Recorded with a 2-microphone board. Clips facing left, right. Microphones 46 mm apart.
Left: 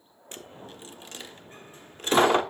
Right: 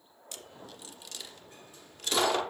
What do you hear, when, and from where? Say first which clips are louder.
0.3 s a dropped coin: left 4 dB; 35° left (ahead or behind), 1.0 m